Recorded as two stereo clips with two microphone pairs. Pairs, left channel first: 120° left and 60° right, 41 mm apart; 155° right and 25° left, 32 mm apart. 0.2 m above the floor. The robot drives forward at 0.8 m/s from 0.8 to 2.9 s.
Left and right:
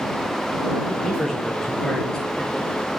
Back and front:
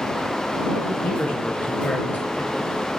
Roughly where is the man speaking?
Behind.